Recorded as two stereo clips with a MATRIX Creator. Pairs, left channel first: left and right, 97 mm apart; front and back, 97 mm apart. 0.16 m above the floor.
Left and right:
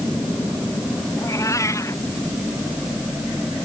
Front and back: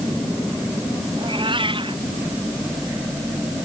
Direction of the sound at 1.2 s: 150° left.